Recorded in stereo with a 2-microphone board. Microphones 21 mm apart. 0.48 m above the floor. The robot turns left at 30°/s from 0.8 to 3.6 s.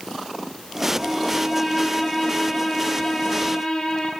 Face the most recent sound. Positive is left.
turn(degrees=120)